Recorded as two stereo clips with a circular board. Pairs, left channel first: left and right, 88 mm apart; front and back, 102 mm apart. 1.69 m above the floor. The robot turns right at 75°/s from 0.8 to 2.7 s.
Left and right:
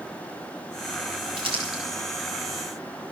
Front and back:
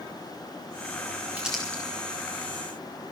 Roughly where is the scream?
No scream in this recording.